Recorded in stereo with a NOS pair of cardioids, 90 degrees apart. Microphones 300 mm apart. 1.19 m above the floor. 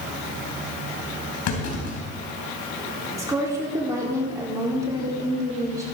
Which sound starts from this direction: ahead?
A woman speaking, at 3.2 s.